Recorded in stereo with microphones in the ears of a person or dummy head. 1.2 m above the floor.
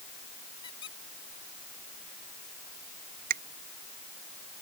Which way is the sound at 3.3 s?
45° right (ahead or behind).